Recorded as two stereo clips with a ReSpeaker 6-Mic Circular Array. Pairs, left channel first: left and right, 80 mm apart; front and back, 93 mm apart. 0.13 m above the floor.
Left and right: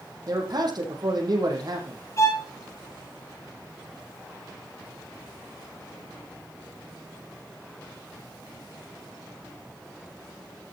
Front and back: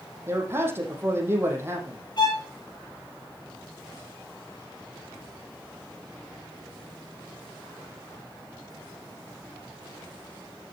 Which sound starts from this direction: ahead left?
A violin, at 2.2 s.